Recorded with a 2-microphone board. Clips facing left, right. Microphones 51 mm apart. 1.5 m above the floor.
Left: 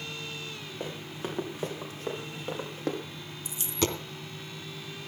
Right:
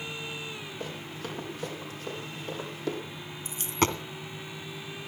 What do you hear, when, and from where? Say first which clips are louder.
0.8 s running footsteps: left 3 dB; 25° left (ahead or behind), 4.5 m; by 3.0 s 40° left (ahead or behind), 5 m
3.5 s a dropped coin: right 3 dB; 40° right (ahead or behind), 1.7 m